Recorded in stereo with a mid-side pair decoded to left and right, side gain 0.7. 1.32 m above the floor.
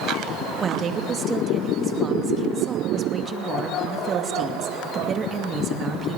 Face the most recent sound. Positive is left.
turn(degrees=-30)